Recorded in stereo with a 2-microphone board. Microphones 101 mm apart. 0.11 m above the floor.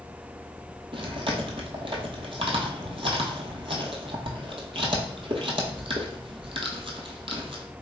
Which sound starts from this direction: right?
Chewing, at 0.9 s.